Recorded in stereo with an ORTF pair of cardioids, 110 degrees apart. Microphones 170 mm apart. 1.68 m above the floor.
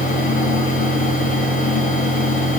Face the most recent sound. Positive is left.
turn(degrees=55)